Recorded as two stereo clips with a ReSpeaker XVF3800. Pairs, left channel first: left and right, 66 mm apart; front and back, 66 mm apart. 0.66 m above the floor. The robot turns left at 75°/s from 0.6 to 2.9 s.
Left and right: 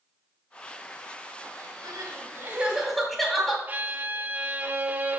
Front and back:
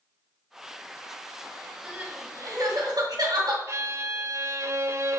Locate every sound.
1.8 s crying: 105° right, 2 m; by 3.6 s straight behind, 2 m
3.7 s a violin: 145° right, 0.5 m